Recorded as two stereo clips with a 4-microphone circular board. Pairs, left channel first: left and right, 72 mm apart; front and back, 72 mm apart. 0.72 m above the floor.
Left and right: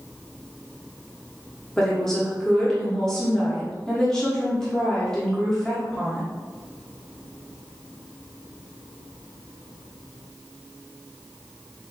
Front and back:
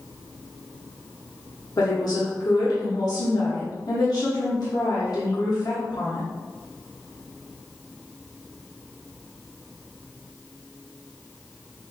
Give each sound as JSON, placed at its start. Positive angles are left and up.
{"t": 1.8, "sound": "a woman speaking", "azimuth_deg": 10, "distance_m": 1.2}